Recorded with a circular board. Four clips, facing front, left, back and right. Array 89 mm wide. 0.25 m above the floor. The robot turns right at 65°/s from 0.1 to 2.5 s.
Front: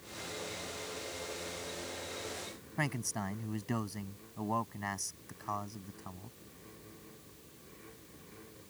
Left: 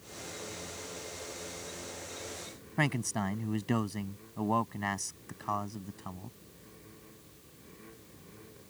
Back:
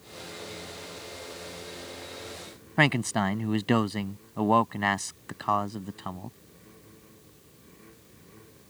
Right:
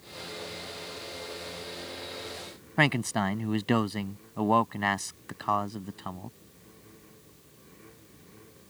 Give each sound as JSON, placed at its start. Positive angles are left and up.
{"t": 2.8, "sound": "a man speaking", "azimuth_deg": -145}